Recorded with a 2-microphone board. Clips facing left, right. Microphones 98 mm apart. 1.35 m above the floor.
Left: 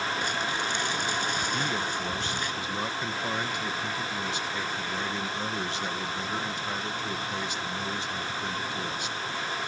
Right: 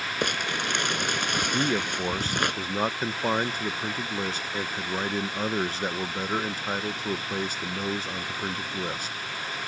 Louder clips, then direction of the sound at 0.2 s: Right 1 dB; 65° right (ahead or behind).